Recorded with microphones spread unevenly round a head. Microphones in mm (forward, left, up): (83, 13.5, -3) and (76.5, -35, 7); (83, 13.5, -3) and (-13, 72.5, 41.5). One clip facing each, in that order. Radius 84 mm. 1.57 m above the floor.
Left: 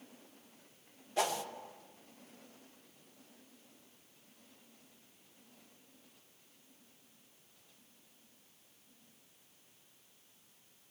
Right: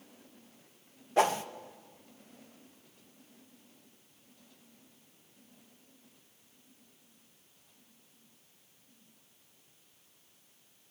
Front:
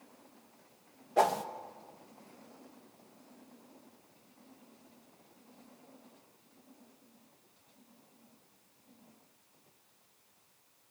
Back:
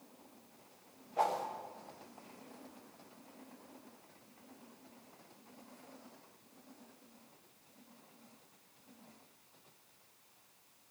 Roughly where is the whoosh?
Ahead right.